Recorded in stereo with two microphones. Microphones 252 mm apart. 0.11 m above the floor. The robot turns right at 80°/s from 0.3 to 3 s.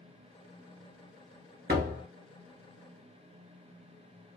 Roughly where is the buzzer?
No buzzer in this recording.